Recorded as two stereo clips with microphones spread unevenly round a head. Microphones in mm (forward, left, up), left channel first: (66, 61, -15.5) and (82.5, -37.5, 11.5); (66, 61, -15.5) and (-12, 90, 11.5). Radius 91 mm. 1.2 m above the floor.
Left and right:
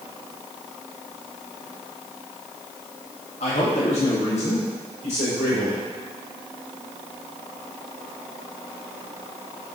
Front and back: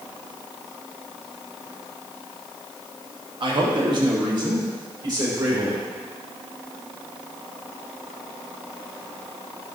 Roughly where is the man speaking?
Behind left.